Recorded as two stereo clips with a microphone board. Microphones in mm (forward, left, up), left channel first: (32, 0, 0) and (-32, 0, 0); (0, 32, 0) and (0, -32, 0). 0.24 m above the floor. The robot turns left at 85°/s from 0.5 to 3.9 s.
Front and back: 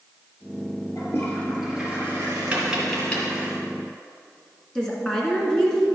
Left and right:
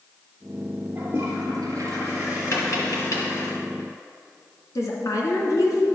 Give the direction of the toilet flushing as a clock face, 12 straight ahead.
1 o'clock.